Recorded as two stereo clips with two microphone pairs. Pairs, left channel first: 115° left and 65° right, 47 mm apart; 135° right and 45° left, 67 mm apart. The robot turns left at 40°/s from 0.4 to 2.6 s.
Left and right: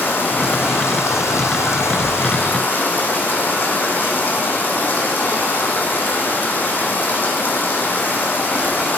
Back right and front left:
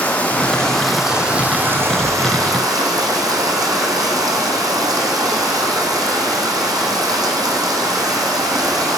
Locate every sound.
0.0 s running water: 160° left, 1.7 m; by 9.0 s 70° left, 1.7 m